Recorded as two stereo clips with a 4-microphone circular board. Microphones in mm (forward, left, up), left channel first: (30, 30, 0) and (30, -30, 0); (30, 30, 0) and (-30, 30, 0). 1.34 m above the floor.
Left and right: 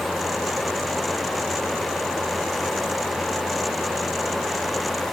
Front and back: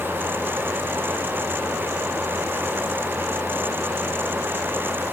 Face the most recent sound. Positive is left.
No sound to turn to.